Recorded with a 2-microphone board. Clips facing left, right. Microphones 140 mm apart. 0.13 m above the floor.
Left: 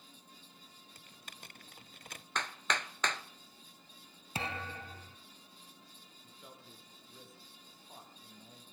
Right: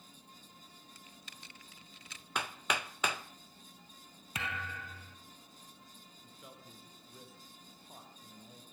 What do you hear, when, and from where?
0.9 s typing on a keyboard: 50° left (ahead or behind), 0.5 m
2.4 s hammering: 10° right (ahead or behind), 0.7 m
4.3 s a thud: 30° left (ahead or behind), 1.0 m
6.2 s a man speaking: 5° right (ahead or behind), 3.5 m